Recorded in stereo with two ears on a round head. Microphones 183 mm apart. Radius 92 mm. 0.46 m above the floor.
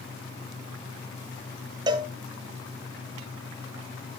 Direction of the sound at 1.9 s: 20° right (ahead or behind).